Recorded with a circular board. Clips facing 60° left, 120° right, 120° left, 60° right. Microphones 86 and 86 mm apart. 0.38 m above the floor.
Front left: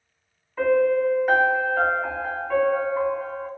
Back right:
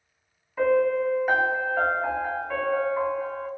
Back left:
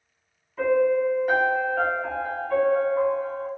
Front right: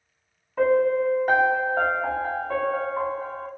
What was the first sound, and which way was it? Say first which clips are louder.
A piano: front left 2 dB, front right 1 dB; 35° right.